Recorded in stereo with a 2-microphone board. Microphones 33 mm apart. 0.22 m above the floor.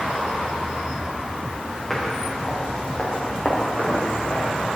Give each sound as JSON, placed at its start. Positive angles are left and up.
{"t": 1.9, "sound": "footsteps", "side_deg": 10, "distance_m": 4.0}